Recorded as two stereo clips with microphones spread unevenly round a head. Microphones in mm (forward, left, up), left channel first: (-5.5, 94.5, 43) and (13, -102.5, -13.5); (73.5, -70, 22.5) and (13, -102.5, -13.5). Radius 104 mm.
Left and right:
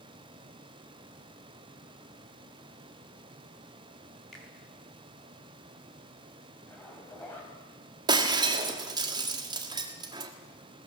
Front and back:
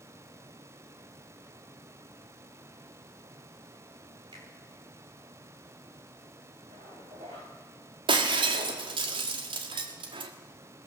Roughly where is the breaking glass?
Behind.